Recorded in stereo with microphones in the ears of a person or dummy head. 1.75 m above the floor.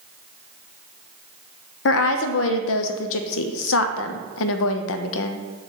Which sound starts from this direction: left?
A woman speaking, at 1.9 s.